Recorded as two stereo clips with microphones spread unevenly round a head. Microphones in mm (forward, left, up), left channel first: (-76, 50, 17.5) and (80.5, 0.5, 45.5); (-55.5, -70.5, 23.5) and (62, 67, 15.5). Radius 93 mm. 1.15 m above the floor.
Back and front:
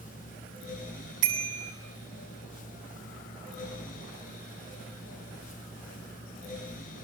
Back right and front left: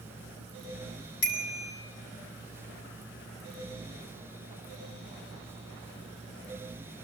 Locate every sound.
1.2 s a bicycle bell: 100° right, 7 m